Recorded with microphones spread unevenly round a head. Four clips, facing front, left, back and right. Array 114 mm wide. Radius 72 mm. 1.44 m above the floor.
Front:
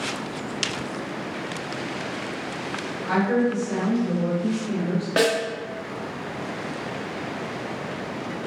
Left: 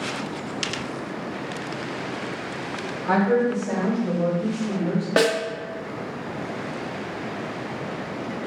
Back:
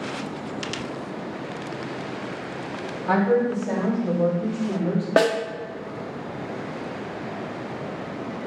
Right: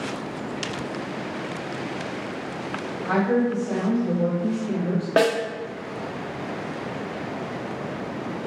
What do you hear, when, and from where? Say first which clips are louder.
3.1 s a woman speaking: left 2 dB, back 2 dB; 175° left, 2 m
5.2 s a snare drum: right 1 dB, back 2 dB; straight behind, 1.0 m